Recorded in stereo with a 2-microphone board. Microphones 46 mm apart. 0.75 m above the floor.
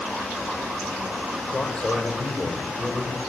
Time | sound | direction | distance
1.5 | a man speaking | 25° left (ahead or behind) | 4 m